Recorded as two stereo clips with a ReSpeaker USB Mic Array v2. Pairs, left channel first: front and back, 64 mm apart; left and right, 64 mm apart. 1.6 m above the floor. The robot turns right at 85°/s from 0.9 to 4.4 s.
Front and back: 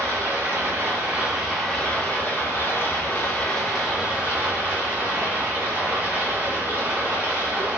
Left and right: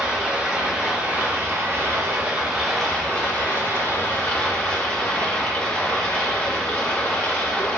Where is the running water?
150° right, 0.9 m; by 7.8 s 145° left, 0.9 m.